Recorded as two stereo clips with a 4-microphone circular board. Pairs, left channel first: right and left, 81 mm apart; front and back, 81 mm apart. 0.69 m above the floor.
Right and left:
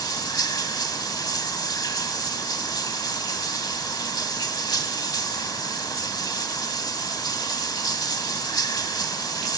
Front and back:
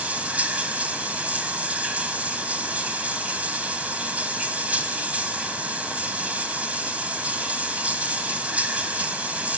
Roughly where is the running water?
Right.